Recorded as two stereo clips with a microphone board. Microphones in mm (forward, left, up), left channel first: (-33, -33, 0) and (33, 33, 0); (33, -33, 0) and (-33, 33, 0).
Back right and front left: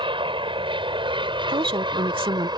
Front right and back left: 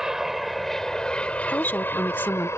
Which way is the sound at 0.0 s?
50° left.